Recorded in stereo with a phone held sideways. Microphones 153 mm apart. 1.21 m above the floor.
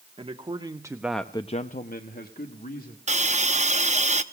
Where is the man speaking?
40° right (ahead or behind), 1.5 m; by 3.0 s 65° left (ahead or behind), 1.9 m.